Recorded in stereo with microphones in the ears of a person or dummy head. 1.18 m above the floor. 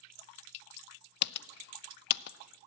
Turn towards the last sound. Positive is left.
turn(degrees=60)  # may be behind; listen again after turning